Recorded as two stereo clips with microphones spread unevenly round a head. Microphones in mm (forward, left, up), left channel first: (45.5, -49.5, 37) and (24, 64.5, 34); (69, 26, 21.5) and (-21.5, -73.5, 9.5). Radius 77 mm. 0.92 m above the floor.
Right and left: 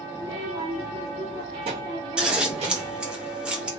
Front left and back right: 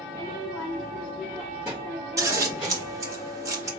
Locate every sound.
0.1 s a child speaking: 175° left, 0.7 m; by 3.0 s 145° left, 2.0 m
2.2 s scissors: 175° left, 0.9 m